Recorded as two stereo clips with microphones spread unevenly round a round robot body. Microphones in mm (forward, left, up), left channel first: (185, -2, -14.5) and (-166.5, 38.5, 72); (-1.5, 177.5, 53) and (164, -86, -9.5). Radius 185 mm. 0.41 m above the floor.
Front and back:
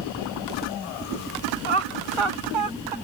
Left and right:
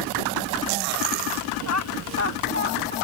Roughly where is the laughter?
Behind.